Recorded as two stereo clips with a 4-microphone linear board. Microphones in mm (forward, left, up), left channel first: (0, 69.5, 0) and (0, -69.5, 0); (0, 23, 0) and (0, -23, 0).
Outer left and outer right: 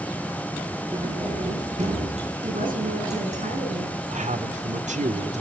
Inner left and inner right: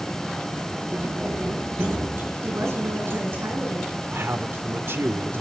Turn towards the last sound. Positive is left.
turn(degrees=-60)  # may be behind; listen again after turning